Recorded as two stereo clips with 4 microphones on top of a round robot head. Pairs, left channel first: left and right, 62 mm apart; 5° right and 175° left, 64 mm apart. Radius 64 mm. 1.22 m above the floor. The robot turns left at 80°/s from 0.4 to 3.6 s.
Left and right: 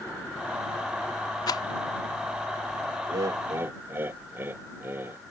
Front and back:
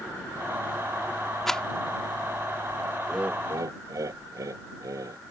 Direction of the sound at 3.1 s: 105° right.